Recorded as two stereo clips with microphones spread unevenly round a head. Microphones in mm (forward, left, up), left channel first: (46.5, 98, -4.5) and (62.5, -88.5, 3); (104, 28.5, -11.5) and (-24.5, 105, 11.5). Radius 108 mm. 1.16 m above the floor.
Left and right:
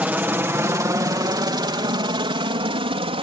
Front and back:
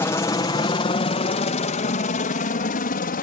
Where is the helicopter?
10° right; by 3.2 s 25° right.